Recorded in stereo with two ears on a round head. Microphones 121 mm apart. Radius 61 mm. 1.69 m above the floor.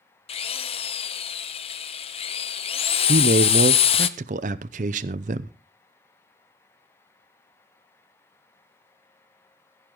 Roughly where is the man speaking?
Right.